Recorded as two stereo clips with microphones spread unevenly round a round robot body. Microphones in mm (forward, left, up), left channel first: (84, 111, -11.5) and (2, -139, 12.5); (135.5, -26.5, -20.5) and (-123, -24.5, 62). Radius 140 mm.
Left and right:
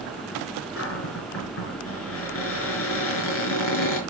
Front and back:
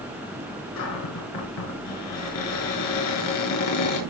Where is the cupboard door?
35° left, 5.5 m.